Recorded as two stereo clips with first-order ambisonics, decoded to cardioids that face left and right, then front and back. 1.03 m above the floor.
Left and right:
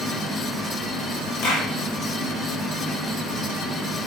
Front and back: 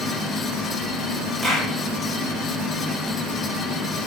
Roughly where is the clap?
Left.